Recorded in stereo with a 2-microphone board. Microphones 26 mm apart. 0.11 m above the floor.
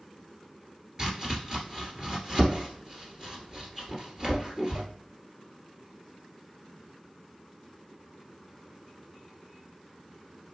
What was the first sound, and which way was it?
Chopping, 25° right (ahead or behind).